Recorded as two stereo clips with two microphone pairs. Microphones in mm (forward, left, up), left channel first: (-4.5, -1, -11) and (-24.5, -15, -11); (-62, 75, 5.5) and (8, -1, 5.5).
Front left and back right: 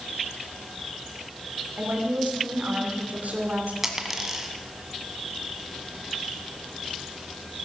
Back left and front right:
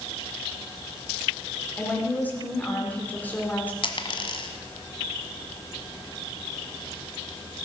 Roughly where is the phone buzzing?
I don't hear a phone buzzing.